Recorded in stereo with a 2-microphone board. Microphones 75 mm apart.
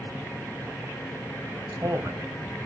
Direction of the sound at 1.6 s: 55° right (ahead or behind).